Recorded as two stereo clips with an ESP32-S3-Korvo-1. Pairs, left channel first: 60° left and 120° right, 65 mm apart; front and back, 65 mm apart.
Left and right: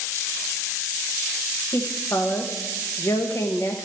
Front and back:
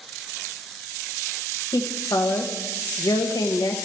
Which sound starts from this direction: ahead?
A woman speaking, at 1.7 s.